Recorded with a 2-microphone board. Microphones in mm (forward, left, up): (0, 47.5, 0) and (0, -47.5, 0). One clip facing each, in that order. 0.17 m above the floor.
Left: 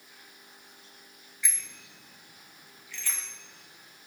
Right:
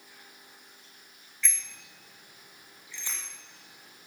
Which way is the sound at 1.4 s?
10° left (ahead or behind).